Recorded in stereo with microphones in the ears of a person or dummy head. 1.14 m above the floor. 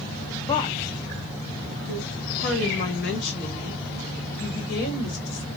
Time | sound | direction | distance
0.5 | a woman speaking | 15° left (ahead or behind) | 0.6 m